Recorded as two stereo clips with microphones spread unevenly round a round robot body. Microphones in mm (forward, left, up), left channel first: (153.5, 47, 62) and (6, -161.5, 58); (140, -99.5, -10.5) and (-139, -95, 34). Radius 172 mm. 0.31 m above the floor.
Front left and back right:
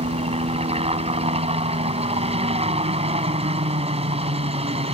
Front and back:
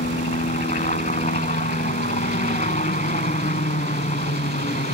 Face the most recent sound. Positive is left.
turn(degrees=-60)